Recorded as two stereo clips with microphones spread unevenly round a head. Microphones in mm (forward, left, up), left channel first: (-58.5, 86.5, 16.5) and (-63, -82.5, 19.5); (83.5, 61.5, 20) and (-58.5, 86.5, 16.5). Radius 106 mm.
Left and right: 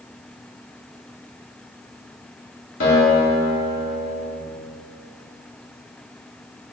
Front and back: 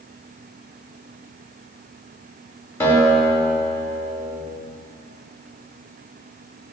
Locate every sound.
2.8 s a guitar: 65° left, 1.9 m